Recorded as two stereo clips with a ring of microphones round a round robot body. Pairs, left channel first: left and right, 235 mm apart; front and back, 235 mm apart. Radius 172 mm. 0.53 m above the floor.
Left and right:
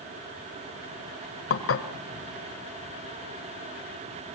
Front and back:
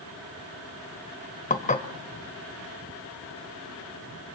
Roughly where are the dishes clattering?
Ahead left.